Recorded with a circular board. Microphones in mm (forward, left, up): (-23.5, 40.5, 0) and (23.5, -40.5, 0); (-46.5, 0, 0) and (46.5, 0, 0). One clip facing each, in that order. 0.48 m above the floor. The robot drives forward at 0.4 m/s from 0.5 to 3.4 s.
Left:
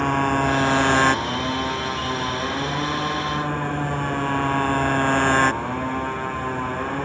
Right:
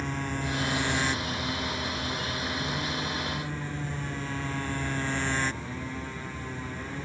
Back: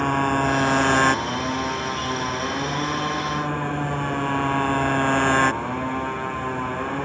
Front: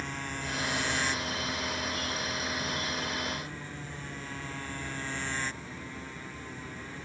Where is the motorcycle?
150° left.